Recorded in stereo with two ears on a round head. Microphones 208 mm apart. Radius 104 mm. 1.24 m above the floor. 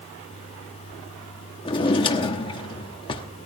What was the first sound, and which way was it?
A drawer, 20° left (ahead or behind).